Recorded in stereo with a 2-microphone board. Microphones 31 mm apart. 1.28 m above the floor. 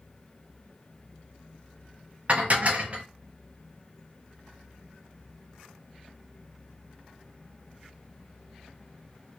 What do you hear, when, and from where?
2.3 s dishes clattering: 45° right (ahead or behind), 0.8 m